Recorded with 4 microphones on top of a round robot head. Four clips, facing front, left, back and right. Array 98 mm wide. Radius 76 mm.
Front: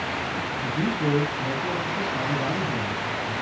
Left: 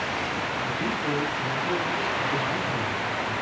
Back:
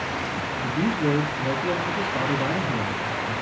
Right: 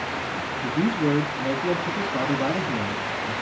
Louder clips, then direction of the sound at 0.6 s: Right 10 dB, back 2 dB; 95° right.